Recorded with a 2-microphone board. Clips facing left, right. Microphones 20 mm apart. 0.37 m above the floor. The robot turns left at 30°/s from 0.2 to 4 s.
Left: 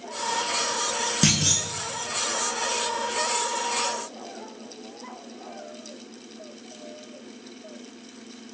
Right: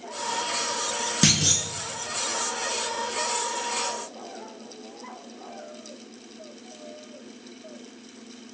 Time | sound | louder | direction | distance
1.2 | a clunk | right 2 dB | 5° right (ahead or behind) | 0.7 m